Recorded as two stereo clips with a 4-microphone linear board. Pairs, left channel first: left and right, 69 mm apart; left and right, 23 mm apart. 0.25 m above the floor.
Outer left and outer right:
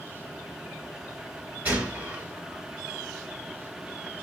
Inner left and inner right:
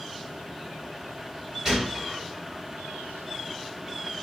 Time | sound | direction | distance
1.6 | a gunshot | 25° right (ahead or behind) | 4 m